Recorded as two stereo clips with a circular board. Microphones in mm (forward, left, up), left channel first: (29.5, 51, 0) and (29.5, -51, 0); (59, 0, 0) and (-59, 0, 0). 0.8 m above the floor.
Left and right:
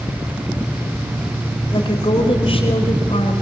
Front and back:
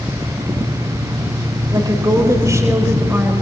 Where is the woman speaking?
125° left, 4 m; by 3.4 s 105° left, 4.5 m.